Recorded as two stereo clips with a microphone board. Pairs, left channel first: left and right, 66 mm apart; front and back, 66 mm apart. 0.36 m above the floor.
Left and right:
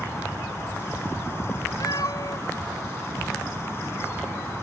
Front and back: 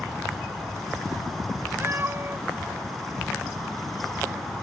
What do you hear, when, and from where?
1.8 s a cat meowing: 120° left